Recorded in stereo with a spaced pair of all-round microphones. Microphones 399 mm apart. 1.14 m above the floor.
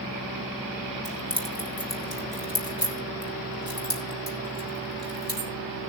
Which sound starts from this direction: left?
Keys jangling, at 1.1 s.